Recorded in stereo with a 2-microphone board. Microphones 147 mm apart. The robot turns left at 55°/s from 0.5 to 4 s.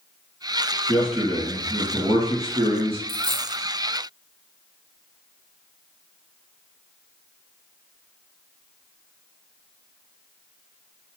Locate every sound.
0.9 s a man speaking: 15° left, 1.9 m; by 3.0 s 100° right, 1.9 m
3.1 s a dropped coin: 15° left (ahead or behind), 0.5 m; by 3.6 s 10° right (ahead or behind), 0.5 m